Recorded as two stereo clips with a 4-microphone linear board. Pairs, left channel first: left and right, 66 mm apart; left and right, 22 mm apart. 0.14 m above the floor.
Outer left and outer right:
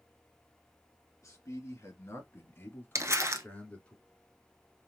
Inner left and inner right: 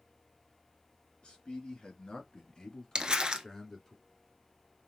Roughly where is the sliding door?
I don't hear a sliding door.